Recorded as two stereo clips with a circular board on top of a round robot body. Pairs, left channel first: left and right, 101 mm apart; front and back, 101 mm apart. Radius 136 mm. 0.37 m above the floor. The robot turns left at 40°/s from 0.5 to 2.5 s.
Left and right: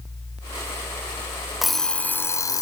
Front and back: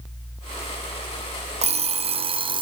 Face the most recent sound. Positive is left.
turn(degrees=145)